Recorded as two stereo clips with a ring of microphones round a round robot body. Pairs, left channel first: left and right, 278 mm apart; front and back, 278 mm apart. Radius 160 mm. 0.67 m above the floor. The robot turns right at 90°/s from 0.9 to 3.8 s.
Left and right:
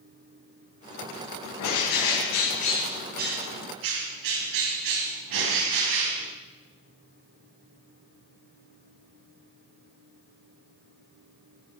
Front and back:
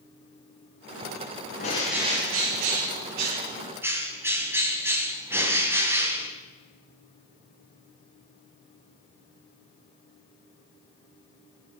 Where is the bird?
65° left, 3 m; by 6.3 s 100° right, 3 m.